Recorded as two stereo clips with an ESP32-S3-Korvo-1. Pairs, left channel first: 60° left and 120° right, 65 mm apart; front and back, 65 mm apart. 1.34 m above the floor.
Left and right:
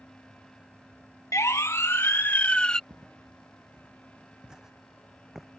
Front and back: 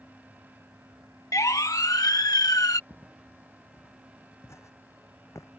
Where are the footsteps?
60° right; by 5.5 s 35° right.